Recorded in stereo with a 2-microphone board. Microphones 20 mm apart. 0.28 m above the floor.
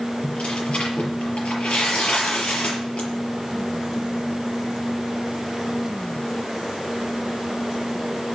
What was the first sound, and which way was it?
Tearing paper, 75° left (ahead or behind).